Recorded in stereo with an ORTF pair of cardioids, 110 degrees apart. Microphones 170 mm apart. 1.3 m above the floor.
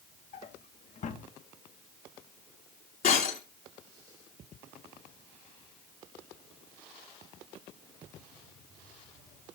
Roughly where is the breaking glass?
Ahead left.